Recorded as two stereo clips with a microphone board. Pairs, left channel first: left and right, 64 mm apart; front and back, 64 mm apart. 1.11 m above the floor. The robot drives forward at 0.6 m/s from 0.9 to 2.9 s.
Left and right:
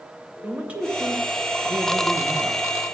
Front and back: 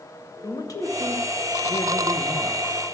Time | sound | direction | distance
0.4 | a man speaking | 20° right | 1.9 m